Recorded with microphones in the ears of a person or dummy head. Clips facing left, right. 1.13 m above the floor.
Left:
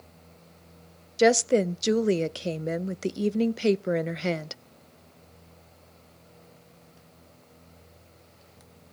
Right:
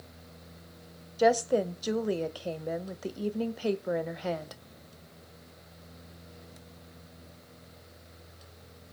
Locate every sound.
1.2 s a woman speaking: 35° left (ahead or behind), 0.6 m